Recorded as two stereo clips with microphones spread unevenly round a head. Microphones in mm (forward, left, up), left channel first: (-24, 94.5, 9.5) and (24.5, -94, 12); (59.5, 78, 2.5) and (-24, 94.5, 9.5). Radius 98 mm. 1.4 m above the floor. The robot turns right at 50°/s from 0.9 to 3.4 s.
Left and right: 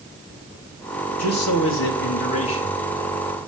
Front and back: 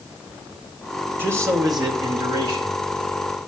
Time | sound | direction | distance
1.2 | a man speaking | 100° left | 1.9 m